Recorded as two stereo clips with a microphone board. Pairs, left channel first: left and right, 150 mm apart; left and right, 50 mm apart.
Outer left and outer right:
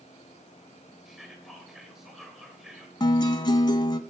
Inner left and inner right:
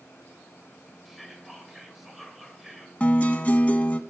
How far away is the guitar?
About 0.6 m.